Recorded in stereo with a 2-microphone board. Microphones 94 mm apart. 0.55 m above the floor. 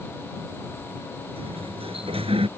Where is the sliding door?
80° right.